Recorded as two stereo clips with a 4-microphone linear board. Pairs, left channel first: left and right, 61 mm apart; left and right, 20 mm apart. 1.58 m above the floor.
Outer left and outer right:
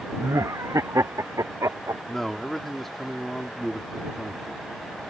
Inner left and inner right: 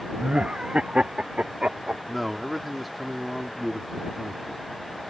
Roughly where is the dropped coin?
I don't hear a dropped coin.